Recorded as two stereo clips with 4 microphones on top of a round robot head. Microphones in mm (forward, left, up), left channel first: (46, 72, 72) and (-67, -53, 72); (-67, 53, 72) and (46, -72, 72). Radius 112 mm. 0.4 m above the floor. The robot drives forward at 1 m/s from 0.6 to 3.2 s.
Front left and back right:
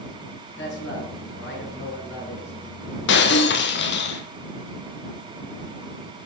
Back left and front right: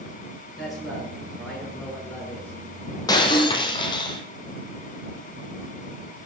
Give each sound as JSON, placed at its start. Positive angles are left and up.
{"t": 0.6, "sound": "a man speaking", "azimuth_deg": 40, "distance_m": 7.5}
{"t": 3.1, "sound": "breaking glass", "azimuth_deg": 60, "distance_m": 1.4}